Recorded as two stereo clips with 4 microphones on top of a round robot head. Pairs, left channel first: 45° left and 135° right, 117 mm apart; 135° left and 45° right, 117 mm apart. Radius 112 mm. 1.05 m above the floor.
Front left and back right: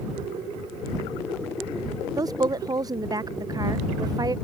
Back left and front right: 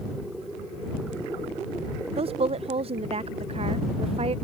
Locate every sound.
2.2 s a woman speaking: 75° right